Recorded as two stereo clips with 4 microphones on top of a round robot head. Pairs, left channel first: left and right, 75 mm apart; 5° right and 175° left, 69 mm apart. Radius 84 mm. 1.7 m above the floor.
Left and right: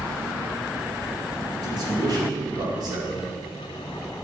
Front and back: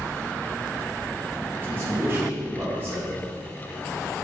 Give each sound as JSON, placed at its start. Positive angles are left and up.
{"t": 1.6, "sound": "a man speaking", "azimuth_deg": -120, "distance_m": 3.0}